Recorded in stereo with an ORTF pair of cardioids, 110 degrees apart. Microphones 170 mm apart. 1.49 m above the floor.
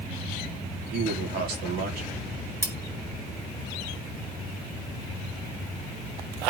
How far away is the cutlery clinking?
About 2 m.